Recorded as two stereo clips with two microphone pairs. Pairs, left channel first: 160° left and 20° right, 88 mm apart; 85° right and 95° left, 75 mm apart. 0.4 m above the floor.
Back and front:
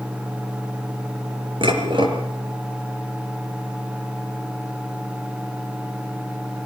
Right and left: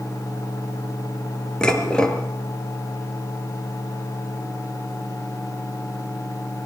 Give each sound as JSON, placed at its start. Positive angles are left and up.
{"t": 1.6, "sound": "dishes clattering", "azimuth_deg": -5, "distance_m": 4.0}